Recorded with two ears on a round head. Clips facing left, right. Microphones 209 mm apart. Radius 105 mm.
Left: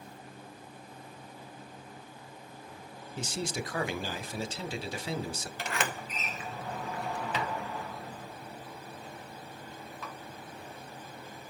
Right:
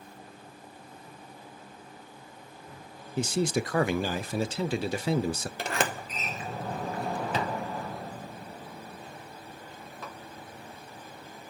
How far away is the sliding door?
About 0.9 m.